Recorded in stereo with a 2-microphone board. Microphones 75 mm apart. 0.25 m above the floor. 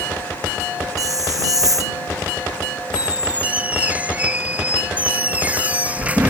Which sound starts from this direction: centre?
A squeak, at 2.9 s.